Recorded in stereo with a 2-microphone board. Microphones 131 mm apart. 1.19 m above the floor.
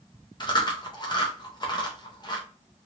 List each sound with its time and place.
0.4 s chewing: 35° left (ahead or behind), 0.7 m